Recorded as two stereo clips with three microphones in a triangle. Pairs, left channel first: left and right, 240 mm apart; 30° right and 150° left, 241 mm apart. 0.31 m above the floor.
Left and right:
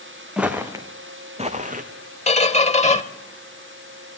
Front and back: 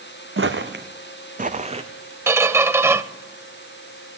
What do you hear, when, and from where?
0.4 s footsteps: 175° right, 1.8 m; by 1.9 s 145° right, 1.8 m
2.3 s a squeak: 85° left, 0.8 m